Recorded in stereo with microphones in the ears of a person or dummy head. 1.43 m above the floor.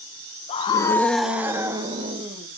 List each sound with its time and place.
0.5 s a scream: 35° left (ahead or behind), 1.1 m; by 2.5 s 35° right (ahead or behind), 1.9 m